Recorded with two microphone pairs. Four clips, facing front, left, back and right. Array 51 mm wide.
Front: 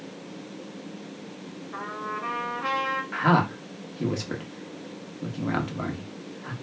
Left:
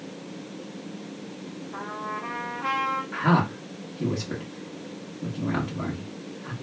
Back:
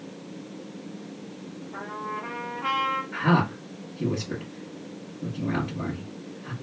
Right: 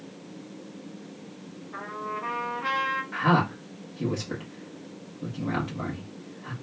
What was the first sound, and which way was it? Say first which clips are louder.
A trumpet: even, front 1 dB; 5° left.